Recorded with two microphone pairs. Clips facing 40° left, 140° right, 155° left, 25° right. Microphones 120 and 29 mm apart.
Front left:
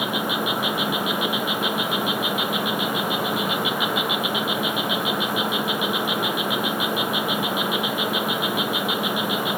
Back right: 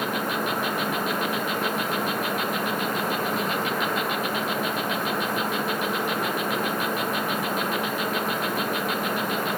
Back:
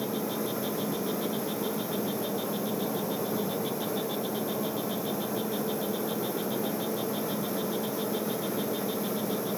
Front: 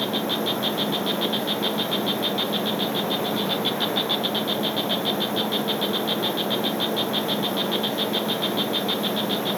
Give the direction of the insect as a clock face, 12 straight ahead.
1 o'clock.